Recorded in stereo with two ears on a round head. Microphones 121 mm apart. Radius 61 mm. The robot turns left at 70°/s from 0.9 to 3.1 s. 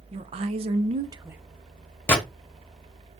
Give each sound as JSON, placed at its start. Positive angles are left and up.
{"t": 0.1, "sound": "a woman speaking", "azimuth_deg": -130, "distance_m": 0.5}
{"t": 2.1, "sound": "a gunshot", "side_deg": 15, "distance_m": 0.9}